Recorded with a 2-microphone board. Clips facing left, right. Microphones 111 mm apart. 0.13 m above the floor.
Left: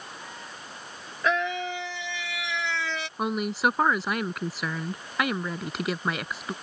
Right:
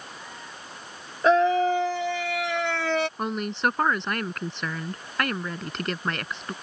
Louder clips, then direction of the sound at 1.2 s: Right 8 dB; 35° right (ahead or behind).